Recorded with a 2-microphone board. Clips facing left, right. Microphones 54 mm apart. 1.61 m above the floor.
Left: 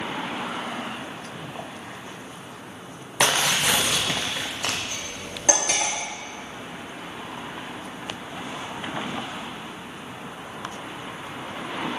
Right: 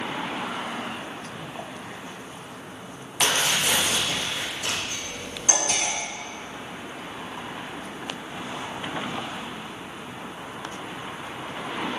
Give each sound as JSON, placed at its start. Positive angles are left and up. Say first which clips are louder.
{"t": 3.2, "sound": "tearing paper", "louder": "left 2 dB", "side_deg": 80, "distance_m": 1.1}
{"t": 4.9, "sound": "cutlery clinking", "louder": "even", "side_deg": 65, "distance_m": 2.0}